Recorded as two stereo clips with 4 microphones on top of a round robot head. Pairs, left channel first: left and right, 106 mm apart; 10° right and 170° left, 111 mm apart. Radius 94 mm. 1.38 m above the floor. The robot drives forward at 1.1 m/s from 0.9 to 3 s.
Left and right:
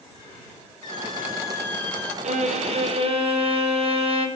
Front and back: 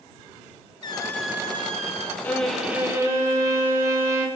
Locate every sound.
0.8 s a squeak: 30° left, 0.7 m; by 2.1 s 165° left, 1.1 m
2.2 s a violin: 85° right, 1.3 m; by 4.3 s 120° right, 1.4 m